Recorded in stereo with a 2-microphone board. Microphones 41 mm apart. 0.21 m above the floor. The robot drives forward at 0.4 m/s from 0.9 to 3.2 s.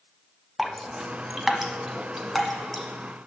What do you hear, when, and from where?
0.6 s dripping: 5° right (ahead or behind), 0.5 m; by 2.8 s centre (ahead or behind), 1.1 m